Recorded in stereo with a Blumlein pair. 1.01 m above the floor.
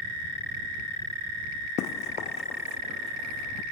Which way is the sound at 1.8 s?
35° left.